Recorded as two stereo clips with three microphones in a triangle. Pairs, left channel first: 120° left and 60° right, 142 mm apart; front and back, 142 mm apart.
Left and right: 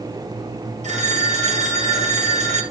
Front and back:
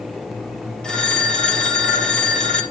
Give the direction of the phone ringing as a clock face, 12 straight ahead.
3 o'clock.